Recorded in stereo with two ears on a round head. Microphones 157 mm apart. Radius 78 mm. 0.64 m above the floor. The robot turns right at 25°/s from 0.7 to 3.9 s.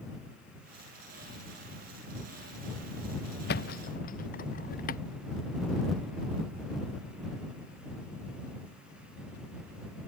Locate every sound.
3.5 s a thud: 60° left (ahead or behind); by 5.0 s 50° left (ahead or behind)